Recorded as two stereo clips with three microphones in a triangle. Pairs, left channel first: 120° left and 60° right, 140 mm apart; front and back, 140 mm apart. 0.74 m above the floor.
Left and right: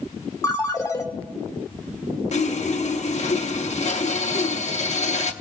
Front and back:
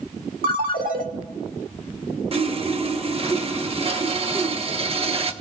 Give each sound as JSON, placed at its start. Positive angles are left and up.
{"t": 0.4, "sound": "a ringtone", "azimuth_deg": -175, "distance_m": 1.1}
{"t": 2.3, "sound": "sawing", "azimuth_deg": 145, "distance_m": 0.8}